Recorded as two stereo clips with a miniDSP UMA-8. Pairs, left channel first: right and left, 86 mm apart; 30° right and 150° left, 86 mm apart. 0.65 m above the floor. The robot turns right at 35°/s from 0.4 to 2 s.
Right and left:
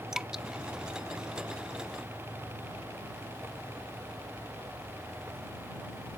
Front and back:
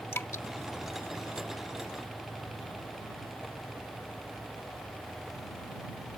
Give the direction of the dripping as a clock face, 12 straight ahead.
12 o'clock.